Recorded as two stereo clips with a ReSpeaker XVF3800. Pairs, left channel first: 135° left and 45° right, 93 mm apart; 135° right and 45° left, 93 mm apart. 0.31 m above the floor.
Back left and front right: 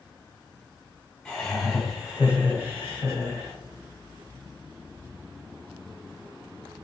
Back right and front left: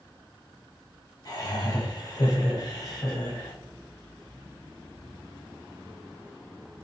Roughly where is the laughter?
Behind right.